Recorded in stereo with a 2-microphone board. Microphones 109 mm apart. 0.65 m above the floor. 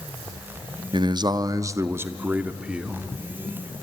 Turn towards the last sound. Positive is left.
turn(degrees=-5)  # may be behind; listen again after turning